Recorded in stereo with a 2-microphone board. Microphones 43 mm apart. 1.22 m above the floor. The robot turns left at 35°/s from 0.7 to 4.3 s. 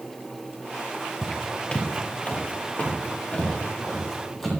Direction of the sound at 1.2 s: 15° left (ahead or behind).